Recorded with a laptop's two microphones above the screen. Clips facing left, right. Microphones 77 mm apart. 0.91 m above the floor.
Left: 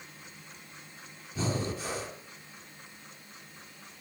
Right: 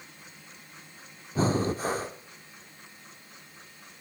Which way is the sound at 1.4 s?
45° right (ahead or behind).